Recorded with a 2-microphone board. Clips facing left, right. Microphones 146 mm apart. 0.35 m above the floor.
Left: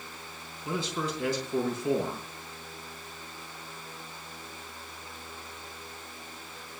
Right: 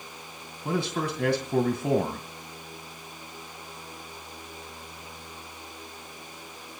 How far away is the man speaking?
About 2.5 m.